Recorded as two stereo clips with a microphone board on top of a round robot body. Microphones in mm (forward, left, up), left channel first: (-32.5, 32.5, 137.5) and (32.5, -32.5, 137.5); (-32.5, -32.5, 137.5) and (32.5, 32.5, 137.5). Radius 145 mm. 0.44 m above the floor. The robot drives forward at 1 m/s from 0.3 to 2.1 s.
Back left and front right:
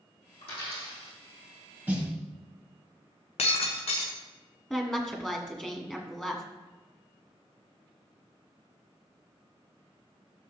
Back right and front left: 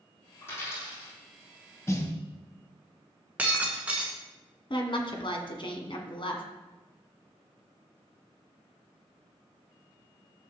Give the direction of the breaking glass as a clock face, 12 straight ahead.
8 o'clock.